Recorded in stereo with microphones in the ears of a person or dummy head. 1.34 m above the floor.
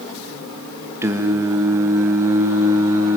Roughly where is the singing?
Centre.